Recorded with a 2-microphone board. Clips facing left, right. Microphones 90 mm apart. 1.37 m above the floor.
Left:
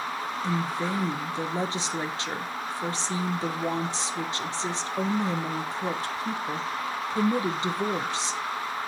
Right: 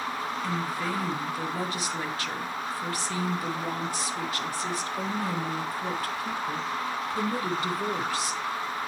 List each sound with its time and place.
0.4 s a woman speaking: 25° left (ahead or behind), 0.7 m